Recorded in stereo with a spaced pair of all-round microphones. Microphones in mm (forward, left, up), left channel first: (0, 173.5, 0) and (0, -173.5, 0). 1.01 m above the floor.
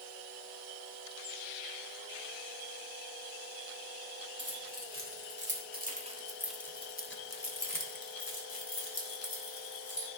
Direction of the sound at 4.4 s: 40° right (ahead or behind).